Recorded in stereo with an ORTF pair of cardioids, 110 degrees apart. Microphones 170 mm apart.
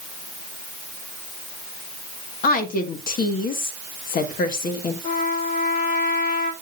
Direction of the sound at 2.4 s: 55° left.